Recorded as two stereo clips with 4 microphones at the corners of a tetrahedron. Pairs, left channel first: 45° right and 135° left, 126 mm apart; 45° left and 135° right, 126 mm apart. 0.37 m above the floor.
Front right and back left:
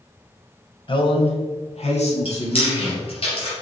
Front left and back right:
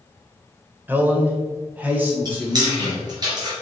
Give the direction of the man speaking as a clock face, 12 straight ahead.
2 o'clock.